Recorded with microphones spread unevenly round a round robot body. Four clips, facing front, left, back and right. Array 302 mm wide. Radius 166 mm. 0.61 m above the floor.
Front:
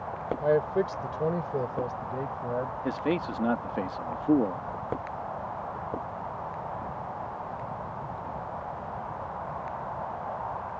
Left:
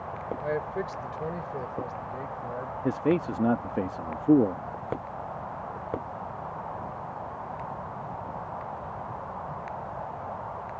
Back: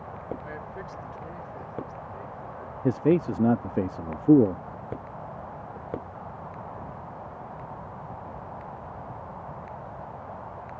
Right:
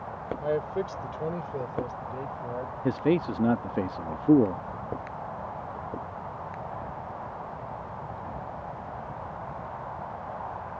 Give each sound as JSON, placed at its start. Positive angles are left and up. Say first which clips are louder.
{"t": 0.4, "sound": "a man speaking", "louder": "right 3 dB, front 14 dB", "azimuth_deg": -5}
{"t": 2.8, "sound": "a man speaking", "louder": "right 1 dB, back 10 dB", "azimuth_deg": -175}